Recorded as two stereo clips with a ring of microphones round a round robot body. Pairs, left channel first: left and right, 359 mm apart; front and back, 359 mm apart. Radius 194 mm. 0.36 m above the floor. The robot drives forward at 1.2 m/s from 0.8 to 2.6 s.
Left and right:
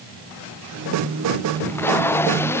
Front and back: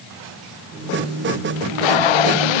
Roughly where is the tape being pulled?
Ahead.